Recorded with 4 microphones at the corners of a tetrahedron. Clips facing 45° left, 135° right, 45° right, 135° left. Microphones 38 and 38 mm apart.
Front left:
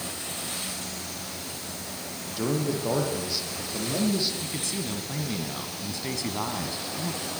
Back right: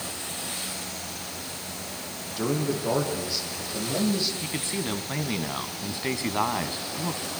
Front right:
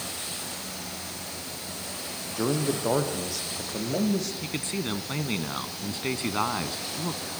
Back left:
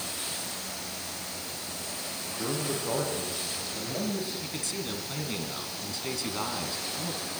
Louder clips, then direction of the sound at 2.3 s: Even, front right 6 dB; 45° right.